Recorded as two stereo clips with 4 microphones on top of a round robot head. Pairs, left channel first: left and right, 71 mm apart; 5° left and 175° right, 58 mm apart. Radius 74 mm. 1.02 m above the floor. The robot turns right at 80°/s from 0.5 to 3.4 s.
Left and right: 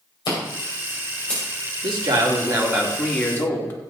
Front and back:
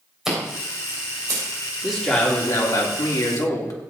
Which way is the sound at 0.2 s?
100° left.